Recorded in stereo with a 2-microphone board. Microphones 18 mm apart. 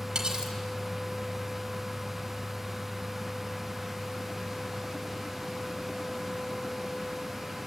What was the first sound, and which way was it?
Cutlery clinking, 50° right (ahead or behind).